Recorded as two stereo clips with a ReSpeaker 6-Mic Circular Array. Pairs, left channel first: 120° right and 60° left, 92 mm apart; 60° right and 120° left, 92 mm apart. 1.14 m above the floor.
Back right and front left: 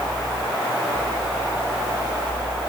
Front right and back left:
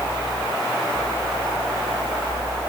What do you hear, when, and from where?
Only background noise.